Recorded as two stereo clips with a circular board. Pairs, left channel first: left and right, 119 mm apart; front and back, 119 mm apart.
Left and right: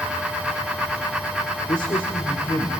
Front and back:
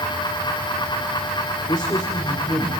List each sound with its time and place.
1.7 s a man speaking: 50° left, 1.8 m; by 2.7 s 55° left, 3 m